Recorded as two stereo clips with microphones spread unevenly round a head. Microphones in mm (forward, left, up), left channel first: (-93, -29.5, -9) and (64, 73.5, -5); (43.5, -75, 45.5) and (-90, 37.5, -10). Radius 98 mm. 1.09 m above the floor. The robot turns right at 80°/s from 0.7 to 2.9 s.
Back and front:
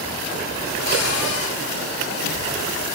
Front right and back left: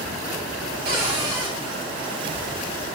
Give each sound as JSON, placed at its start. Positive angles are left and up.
{"t": 0.8, "sound": "a cupboard door", "azimuth_deg": 175, "distance_m": 4.0}